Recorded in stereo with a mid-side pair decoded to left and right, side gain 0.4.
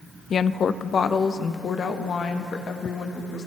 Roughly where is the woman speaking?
Ahead left.